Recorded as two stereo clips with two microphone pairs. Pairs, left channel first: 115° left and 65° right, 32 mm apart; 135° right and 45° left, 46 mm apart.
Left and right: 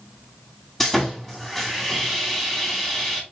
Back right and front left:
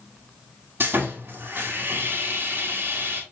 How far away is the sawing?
About 1.7 m.